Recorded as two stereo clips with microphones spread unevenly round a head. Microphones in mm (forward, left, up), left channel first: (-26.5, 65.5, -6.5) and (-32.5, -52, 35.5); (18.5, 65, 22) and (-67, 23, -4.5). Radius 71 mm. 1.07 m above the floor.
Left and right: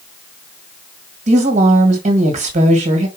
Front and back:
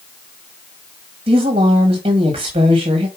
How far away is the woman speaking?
About 1.5 m.